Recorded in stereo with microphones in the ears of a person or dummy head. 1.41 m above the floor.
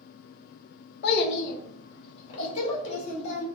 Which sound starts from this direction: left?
A child speaking, at 1.0 s.